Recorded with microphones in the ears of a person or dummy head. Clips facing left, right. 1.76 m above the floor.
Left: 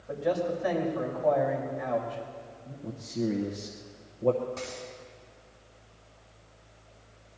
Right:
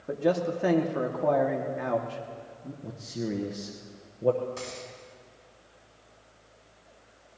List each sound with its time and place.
0.1 s a man speaking: 75° right (ahead or behind), 2 m
2.8 s a man speaking: 5° right (ahead or behind), 1.0 m
4.6 s a dropped coin: 15° right (ahead or behind), 4.5 m